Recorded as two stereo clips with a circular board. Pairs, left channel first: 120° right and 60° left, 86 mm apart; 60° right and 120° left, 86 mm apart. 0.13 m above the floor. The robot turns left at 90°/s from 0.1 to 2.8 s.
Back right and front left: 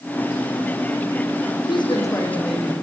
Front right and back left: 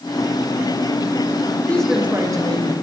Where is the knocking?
No knocking in this recording.